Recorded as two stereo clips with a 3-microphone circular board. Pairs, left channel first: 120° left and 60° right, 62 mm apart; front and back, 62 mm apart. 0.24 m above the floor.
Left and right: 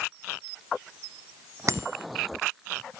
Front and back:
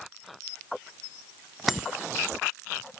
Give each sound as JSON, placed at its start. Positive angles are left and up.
{"t": 1.7, "sound": "a bicycle bell", "azimuth_deg": -95}